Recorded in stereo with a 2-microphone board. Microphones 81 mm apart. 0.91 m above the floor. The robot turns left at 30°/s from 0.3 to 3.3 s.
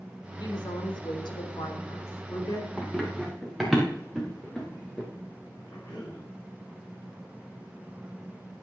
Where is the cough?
55° left (ahead or behind), 8 m.